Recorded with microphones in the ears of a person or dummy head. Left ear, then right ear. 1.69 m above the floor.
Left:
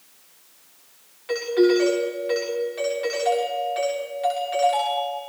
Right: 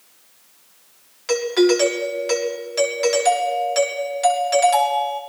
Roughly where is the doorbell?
Right.